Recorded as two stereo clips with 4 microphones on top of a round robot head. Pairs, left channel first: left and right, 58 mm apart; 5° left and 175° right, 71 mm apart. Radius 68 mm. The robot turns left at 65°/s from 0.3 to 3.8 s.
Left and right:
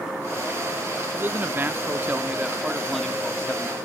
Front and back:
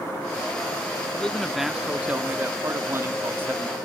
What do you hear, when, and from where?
1.1 s a man speaking: 60° right, 0.8 m; by 3.8 s 130° left, 0.8 m